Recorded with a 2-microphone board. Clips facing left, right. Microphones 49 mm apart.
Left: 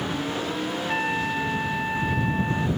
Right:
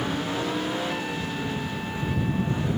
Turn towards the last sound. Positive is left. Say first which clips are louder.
# left 4 dB
turn(degrees=45)  # may be behind; listen again after turning